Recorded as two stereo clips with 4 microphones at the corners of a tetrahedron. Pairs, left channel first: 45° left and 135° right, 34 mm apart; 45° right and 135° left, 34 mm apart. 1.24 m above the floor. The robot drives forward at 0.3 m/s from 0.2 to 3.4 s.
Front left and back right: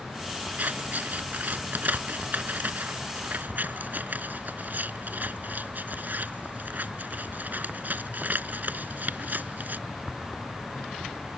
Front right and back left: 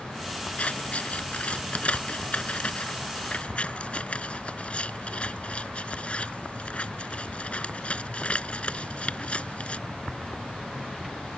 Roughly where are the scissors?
Right.